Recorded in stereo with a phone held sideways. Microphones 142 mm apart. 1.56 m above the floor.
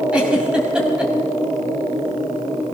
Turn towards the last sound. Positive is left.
turn(degrees=-5)  # may be behind; listen again after turning